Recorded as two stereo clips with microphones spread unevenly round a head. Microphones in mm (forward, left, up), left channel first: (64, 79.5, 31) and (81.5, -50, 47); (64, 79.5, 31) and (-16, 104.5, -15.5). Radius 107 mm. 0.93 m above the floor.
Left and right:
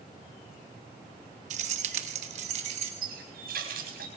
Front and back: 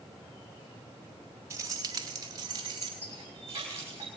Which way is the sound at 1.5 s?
135° right.